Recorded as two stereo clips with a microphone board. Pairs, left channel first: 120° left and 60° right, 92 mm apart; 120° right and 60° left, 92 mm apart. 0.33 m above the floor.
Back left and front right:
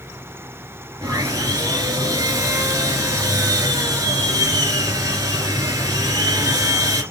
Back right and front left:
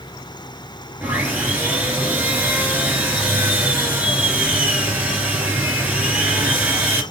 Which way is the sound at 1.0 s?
10° right.